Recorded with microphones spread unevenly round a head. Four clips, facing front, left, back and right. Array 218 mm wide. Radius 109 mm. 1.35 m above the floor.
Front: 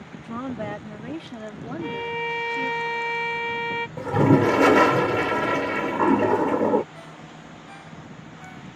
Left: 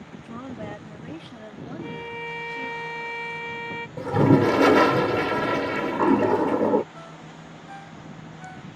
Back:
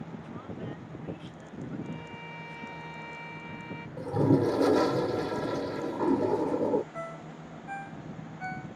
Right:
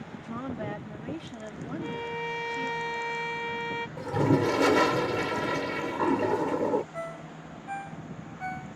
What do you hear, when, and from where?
0.2 s a woman speaking: 5° right
1.8 s a violin: 5° right
4.0 s a toilet flushing: 55° left
6.9 s a ringtone: 130° right